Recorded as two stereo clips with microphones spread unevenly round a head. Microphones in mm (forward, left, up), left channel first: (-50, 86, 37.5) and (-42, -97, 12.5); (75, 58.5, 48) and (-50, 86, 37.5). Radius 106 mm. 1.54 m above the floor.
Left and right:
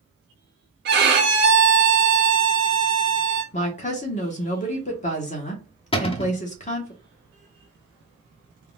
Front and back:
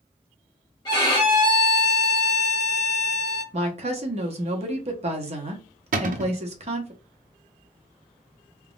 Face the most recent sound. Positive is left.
turn(degrees=155)